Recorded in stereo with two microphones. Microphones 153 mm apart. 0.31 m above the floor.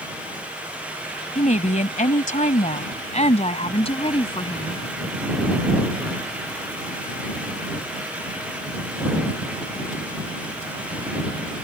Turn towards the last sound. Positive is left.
turn(degrees=30)  # may be behind; listen again after turning